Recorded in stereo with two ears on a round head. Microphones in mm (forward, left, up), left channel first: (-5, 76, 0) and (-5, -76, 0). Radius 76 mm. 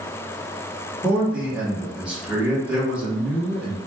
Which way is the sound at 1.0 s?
10° right (ahead or behind).